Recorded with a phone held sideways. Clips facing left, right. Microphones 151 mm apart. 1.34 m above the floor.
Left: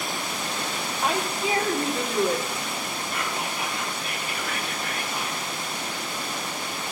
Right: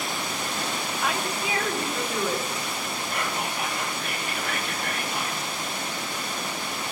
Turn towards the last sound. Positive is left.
turn(degrees=-65)  # may be behind; listen again after turning